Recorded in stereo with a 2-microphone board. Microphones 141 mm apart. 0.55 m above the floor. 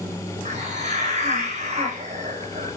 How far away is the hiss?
About 4.5 m.